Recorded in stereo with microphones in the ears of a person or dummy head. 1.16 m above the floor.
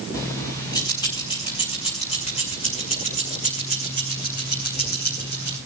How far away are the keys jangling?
About 6 m.